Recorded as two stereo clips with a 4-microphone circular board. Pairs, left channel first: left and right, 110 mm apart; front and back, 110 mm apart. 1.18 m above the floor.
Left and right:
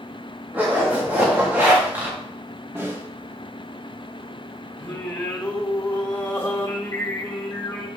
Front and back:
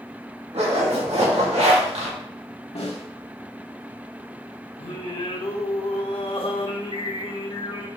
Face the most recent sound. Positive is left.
turn(degrees=20)